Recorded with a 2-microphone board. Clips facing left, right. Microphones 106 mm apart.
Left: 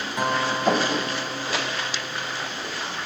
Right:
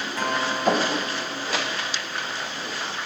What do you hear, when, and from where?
0.2 s a guitar: 20° left (ahead or behind), 2.5 m